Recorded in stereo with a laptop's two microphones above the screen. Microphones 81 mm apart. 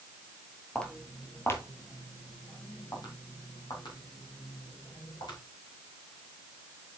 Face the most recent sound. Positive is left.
turn(degrees=70)  # may be behind; listen again after turning